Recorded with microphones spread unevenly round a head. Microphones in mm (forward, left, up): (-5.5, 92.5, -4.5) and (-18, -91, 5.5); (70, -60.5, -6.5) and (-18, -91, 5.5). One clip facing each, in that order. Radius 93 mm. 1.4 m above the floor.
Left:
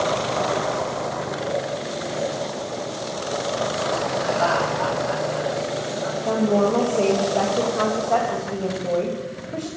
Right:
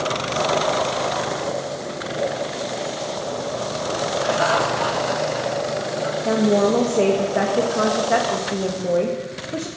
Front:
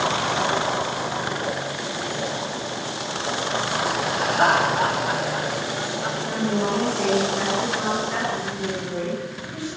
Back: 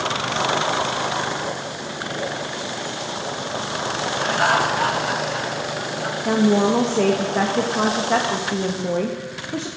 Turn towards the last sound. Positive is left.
turn(degrees=-160)